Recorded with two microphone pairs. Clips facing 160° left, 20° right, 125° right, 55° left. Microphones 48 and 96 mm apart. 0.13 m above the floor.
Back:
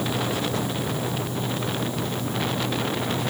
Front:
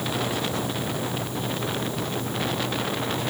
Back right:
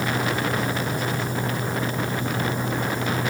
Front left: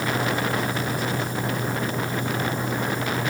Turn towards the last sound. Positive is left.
No sound to turn to.